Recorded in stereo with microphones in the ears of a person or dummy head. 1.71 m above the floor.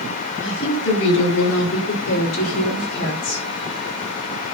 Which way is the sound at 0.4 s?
75° left (ahead or behind).